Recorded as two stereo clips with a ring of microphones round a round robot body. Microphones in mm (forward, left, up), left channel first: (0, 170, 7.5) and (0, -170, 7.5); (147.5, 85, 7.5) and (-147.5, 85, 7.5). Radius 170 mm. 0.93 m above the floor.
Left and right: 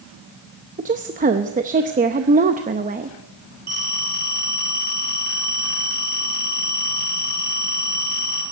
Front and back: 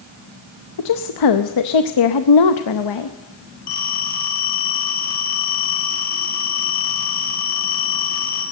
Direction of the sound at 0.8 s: 20° right.